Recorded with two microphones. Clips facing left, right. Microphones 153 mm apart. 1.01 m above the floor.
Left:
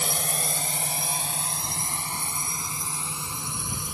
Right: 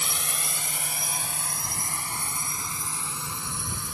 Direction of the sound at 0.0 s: 40° left (ahead or behind).